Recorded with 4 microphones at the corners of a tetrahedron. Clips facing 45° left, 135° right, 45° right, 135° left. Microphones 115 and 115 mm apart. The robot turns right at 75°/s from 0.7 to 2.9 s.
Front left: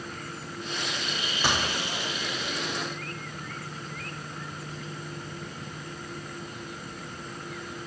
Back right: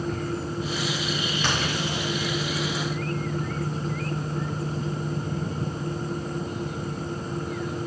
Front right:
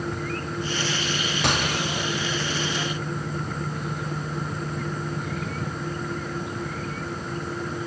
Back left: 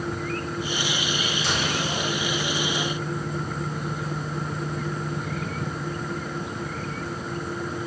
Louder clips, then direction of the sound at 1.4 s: Front left 1 dB, front right 4 dB; 30° right.